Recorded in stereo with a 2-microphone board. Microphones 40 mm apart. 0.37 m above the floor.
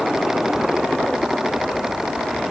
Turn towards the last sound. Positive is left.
No sound to turn to.